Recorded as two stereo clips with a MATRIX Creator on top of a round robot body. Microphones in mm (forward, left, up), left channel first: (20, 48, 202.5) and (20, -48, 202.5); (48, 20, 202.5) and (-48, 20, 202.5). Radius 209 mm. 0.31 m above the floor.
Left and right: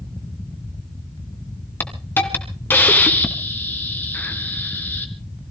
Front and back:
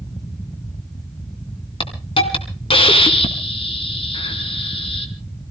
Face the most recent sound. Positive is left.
turn(degrees=20)